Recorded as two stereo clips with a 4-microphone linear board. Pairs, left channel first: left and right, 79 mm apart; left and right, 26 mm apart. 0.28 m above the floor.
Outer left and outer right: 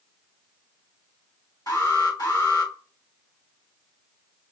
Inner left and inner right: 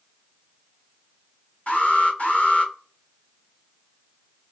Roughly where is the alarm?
Left.